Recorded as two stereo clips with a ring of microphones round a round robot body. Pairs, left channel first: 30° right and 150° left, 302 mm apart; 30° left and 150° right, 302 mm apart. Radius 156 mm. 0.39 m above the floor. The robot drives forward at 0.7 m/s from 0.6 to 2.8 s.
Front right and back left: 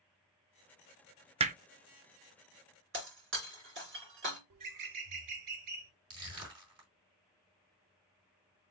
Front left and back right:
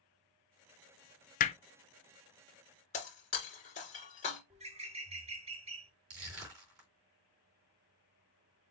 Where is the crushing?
Straight behind, 3 m.